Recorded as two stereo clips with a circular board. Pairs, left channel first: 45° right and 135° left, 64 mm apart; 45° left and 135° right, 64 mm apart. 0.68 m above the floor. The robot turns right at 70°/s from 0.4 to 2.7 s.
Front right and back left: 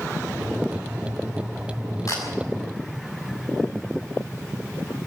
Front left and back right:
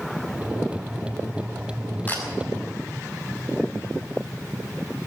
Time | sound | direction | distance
2.1 | a camera shutter | 15° right | 6 m